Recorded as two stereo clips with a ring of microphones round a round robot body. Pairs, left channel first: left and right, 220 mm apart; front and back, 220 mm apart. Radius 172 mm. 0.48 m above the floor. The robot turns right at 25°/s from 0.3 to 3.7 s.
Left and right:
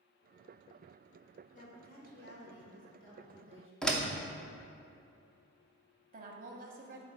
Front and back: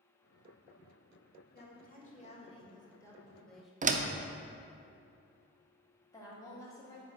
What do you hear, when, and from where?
1.5 s a woman speaking: 40° left, 1.9 m; by 3.7 s 90° left, 1.9 m
3.8 s a door slam: 175° left, 0.6 m
6.1 s a woman speaking: 70° right, 0.8 m